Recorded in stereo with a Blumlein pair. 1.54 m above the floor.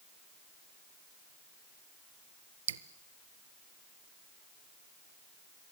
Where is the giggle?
No giggle in this recording.